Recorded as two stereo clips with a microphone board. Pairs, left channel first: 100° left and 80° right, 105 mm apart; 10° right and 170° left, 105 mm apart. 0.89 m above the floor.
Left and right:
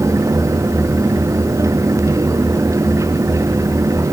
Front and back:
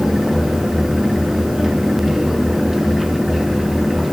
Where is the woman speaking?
No woman speaking in this recording.